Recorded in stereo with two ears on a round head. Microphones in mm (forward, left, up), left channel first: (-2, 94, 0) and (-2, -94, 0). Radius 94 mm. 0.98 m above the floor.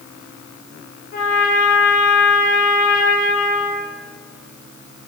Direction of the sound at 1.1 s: 45° left (ahead or behind).